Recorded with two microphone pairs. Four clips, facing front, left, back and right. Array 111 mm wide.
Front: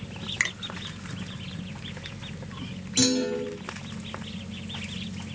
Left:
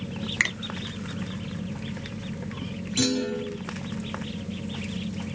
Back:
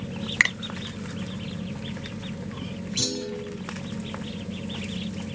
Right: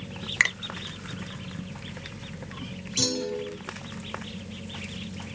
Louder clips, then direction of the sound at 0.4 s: Right 3 dB, back 6 dB; 160° right.